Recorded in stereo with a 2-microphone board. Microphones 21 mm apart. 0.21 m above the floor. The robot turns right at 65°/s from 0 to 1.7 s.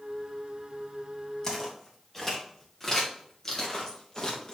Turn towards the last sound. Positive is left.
turn(degrees=35)  # may be behind; listen again after turning